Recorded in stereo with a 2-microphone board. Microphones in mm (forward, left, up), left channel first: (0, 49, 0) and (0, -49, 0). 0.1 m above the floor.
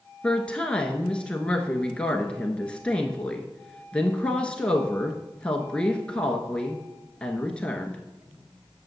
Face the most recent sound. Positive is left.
turn(degrees=10)  # may be behind; listen again after turning